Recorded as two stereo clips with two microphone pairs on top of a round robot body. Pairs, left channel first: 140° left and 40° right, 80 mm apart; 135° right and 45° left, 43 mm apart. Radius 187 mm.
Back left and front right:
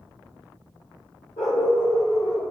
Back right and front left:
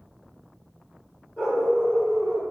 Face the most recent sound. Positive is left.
turn(degrees=65)